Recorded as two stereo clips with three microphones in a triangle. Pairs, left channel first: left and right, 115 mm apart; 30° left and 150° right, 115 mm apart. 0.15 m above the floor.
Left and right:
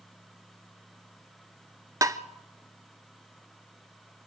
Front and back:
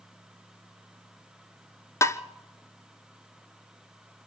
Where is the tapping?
35° right, 0.7 m.